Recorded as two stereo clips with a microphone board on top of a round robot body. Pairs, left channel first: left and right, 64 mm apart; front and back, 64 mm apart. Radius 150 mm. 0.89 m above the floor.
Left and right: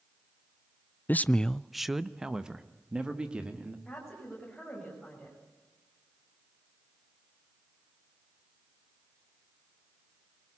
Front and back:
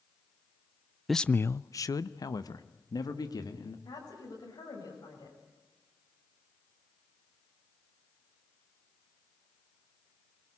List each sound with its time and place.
1.1 s a man speaking: 95° left, 0.5 m; by 3.8 s 15° right, 2.5 m
3.9 s a woman speaking: straight ahead, 7 m